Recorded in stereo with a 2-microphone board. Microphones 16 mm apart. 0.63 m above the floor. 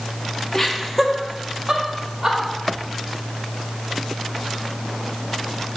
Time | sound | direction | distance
0.5 | laughter | 30° left (ahead or behind) | 0.8 m